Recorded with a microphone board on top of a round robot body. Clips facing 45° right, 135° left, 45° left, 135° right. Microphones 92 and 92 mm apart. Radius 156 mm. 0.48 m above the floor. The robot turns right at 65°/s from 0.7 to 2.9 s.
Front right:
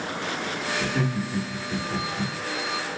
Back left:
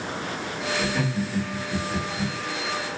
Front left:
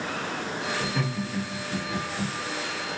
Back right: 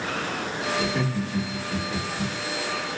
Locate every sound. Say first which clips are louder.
0.8 s laughter: even, back right 3 dB; 110° right, 2 m; by 2.3 s 10° right, 2 m